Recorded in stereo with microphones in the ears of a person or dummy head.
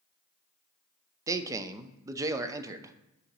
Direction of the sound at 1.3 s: 20° right (ahead or behind).